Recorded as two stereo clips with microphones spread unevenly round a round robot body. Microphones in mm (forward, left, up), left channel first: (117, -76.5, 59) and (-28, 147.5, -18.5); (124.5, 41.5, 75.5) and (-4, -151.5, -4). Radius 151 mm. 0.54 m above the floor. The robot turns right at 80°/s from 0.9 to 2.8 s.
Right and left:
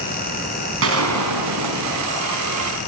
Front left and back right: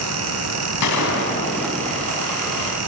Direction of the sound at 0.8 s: 85° left.